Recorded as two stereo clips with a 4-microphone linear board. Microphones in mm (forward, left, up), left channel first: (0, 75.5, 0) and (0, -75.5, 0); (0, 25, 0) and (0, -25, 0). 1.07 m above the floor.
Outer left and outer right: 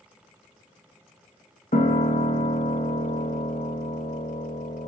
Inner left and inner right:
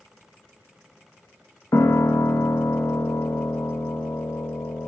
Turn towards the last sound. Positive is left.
turn(degrees=60)  # may be behind; listen again after turning